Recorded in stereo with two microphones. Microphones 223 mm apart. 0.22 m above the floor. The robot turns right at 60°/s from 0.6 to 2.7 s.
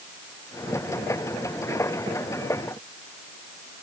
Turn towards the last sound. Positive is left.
No sound to turn to.